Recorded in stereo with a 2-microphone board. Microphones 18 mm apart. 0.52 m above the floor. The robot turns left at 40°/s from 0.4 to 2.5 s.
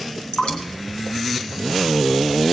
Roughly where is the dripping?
Left.